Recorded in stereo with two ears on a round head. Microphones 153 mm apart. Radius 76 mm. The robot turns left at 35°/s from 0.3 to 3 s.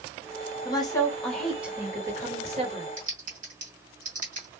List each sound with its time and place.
0.7 s a woman speaking: 30° left, 1.4 m; by 2.9 s 50° right, 1.4 m
3.0 s typing on a keyboard: 45° right (ahead or behind), 2.0 m